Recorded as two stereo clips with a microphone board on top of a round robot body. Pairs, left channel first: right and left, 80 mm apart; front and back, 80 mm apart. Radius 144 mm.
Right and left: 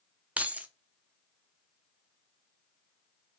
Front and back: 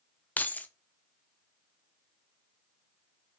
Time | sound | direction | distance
0.4 | keys jangling | 40° left | 0.5 m